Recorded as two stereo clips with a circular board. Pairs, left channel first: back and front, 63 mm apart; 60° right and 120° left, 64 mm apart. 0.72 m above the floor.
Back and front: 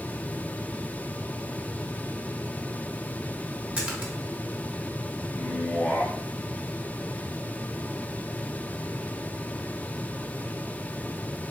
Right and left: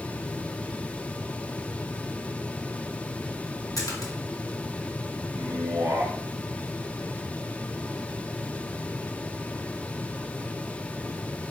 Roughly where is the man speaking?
Left.